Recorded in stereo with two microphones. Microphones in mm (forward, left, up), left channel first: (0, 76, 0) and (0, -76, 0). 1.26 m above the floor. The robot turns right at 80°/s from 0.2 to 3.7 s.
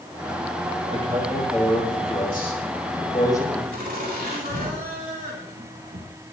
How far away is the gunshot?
I don't hear a gunshot.